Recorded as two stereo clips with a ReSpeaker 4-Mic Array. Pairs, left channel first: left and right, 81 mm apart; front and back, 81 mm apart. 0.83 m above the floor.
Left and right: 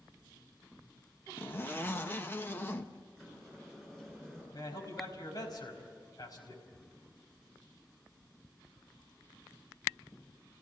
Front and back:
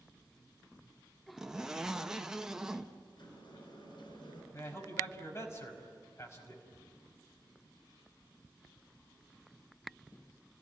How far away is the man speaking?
About 5 m.